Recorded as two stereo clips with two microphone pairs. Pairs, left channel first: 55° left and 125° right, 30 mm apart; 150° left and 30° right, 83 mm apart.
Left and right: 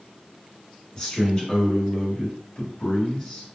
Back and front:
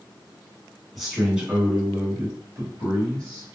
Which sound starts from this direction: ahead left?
A man speaking, at 0.9 s.